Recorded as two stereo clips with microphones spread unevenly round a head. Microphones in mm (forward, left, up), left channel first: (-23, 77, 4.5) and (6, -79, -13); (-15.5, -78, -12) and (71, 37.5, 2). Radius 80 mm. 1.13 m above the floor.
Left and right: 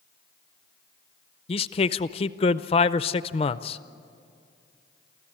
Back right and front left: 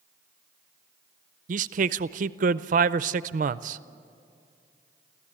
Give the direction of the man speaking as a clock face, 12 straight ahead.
10 o'clock.